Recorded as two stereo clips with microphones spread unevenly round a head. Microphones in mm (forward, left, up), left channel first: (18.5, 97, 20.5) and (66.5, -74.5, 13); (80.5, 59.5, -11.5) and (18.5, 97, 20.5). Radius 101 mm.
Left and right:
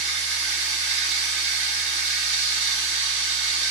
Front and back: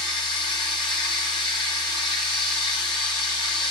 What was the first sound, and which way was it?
Running water, 50° right.